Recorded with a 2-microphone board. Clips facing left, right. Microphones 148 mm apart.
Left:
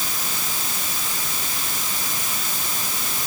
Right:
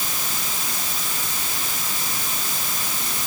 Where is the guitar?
No guitar in this recording.